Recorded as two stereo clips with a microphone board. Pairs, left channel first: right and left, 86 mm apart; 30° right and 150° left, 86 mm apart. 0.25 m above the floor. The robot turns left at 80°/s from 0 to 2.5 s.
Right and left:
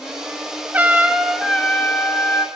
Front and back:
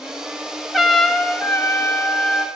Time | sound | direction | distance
0.7 | a trumpet | 60° left | 1.3 m